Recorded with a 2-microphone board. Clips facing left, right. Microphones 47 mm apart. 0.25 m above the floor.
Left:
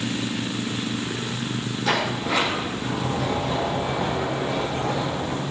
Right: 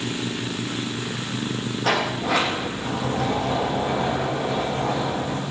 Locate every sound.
1.8 s a sliding door: 55° right (ahead or behind), 5 m